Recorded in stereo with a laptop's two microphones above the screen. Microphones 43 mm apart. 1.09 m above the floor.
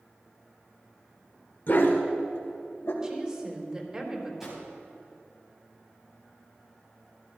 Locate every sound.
1.7 s a dog barking: 50° left (ahead or behind), 1.3 m; by 2.9 s 70° left (ahead or behind), 1.9 m
3.0 s a woman speaking: 25° right (ahead or behind), 3.5 m
4.4 s a drawer: 5° right (ahead or behind), 3.5 m